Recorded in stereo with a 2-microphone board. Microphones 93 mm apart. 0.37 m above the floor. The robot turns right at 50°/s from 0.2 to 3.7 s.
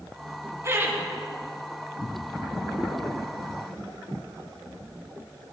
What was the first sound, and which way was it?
Laughter, 35° right (ahead or behind).